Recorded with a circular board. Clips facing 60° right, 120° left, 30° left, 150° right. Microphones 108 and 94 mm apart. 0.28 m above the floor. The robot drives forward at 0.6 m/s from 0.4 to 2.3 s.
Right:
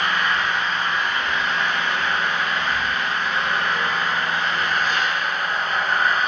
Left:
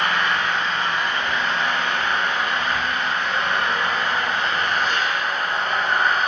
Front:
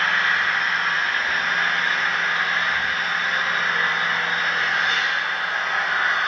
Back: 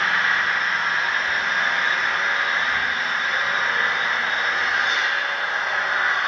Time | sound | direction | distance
0.0 | an engine running | 135° left | 5.5 m